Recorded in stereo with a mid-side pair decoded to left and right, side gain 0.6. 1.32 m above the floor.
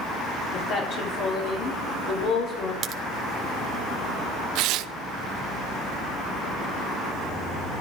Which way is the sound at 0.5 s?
60° left.